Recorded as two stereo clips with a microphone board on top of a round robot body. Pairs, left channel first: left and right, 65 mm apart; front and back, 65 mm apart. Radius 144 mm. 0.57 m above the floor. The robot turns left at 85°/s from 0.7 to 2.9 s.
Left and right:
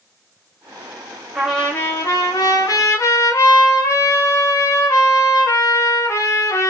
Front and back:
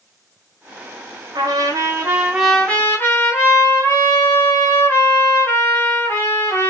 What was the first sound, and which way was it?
A trumpet, 170° right.